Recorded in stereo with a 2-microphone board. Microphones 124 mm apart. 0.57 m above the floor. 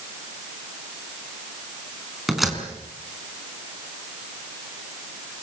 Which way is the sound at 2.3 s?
Centre (ahead or behind).